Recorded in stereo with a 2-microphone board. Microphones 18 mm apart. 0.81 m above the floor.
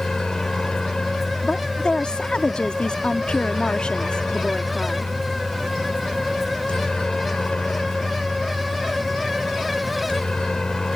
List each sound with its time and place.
0.0 s a helicopter: 65° left (ahead or behind)
1.4 s a woman speaking: 65° left (ahead or behind)